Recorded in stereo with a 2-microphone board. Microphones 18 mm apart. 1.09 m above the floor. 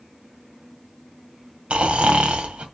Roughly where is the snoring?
Right.